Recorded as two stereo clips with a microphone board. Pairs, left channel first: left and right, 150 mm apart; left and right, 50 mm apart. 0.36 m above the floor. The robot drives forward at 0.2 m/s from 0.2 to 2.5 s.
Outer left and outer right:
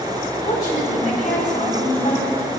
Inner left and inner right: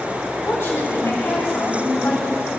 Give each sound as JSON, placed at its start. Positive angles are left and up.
{"t": 0.5, "sound": "a woman speaking", "side_deg": 55, "distance_m": 1.8}